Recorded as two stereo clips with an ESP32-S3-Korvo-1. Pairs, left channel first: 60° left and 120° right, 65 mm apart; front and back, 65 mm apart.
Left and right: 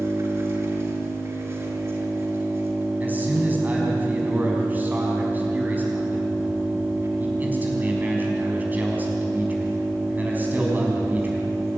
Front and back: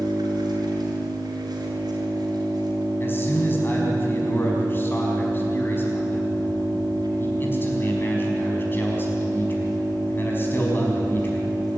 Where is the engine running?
165° right, 5.5 m.